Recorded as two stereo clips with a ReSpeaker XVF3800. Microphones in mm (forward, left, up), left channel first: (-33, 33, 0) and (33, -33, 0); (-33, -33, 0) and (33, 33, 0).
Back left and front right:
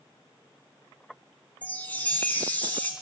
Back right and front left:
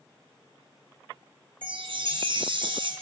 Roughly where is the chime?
Ahead left.